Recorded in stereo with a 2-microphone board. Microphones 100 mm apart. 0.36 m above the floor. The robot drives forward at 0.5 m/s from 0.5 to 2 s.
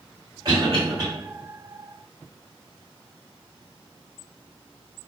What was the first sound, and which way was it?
A cough, 40° right (ahead or behind).